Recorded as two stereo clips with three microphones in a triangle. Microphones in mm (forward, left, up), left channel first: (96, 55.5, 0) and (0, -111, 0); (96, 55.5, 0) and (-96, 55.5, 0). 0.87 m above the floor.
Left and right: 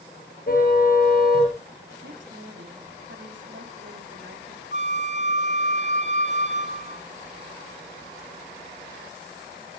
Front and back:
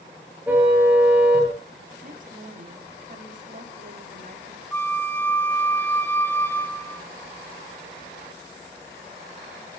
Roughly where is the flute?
Right.